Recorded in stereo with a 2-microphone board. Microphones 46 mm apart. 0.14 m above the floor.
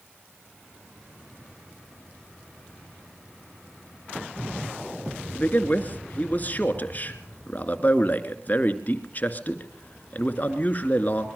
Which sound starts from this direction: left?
A man speaking, at 5.3 s.